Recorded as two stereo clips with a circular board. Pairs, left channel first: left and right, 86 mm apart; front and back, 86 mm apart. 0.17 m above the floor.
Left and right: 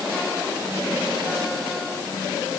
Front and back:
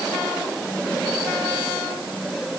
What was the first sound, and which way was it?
Only background noise.